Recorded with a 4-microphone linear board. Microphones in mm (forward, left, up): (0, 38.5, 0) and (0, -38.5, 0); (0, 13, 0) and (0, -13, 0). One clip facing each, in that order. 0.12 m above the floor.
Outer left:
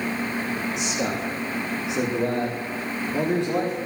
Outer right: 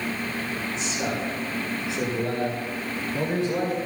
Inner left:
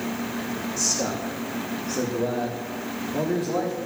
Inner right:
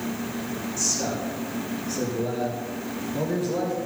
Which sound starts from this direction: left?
A man speaking, at 0.8 s.